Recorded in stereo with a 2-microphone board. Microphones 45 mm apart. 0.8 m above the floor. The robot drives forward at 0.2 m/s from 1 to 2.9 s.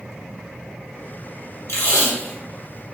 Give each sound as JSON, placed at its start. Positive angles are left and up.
{"t": 1.7, "sound": "tape being pulled", "side_deg": 80, "distance_m": 1.1}